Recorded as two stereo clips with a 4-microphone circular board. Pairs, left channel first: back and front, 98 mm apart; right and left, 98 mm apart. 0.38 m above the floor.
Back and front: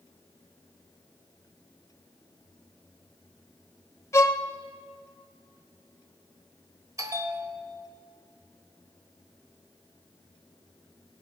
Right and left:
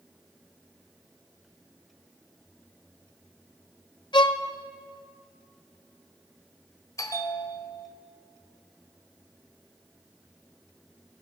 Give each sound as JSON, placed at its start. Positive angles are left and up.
{"t": 4.1, "sound": "a violin", "azimuth_deg": -120, "distance_m": 0.5}
{"t": 7.0, "sound": "a bell", "azimuth_deg": -45, "distance_m": 0.9}